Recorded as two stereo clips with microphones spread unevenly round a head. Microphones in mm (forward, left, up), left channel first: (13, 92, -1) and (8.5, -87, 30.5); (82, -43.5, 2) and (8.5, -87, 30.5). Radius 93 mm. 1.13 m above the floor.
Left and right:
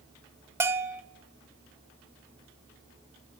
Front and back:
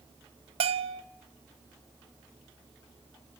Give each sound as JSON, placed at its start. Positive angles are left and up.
{"t": 0.6, "sound": "a bell", "azimuth_deg": -175, "distance_m": 0.5}